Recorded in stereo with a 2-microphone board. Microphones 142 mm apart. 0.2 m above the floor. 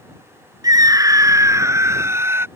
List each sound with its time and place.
0.6 s a scream: 25° right (ahead or behind); by 2.5 s 15° right (ahead or behind)